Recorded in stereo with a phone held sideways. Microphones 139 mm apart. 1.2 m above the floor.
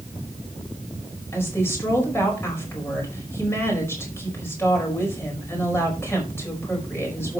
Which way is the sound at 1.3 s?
20° left (ahead or behind).